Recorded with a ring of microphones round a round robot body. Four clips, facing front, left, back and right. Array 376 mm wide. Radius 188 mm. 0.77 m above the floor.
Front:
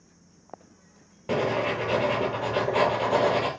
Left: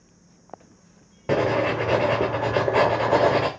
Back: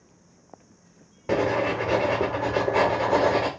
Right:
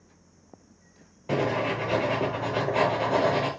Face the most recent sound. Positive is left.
turn(degrees=105)